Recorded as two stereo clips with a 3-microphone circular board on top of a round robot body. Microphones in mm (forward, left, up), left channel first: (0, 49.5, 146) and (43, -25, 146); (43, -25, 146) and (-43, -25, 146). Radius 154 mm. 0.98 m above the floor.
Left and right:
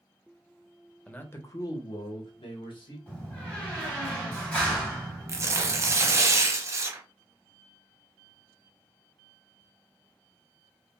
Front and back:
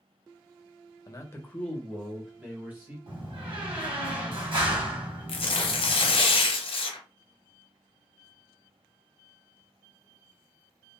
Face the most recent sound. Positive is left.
turn(degrees=-5)